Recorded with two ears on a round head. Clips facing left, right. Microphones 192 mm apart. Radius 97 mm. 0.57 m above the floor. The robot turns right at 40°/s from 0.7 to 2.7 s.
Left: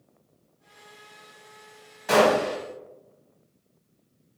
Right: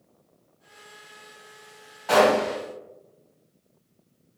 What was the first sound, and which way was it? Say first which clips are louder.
A gunshot: right 1 dB; 25° left (ahead or behind).